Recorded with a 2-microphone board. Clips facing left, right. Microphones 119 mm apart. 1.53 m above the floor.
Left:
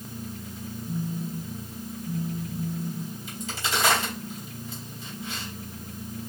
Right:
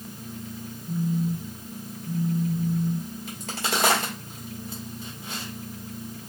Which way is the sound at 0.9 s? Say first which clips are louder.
Right 6 dB; 10° right (ahead or behind).